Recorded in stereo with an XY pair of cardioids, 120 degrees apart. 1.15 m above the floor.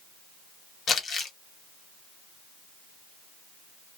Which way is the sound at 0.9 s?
45° left.